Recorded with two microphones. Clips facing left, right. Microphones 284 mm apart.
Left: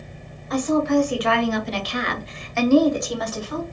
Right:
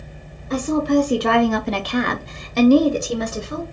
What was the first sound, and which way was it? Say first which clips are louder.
A woman speaking: right 1 dB; 30° right (ahead or behind).